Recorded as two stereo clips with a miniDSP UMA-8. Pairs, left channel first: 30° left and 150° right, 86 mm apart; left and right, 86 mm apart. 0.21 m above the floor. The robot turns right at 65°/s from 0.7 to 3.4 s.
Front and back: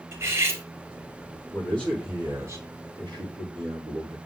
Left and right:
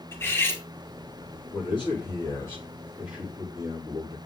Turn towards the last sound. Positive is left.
turn(degrees=-150)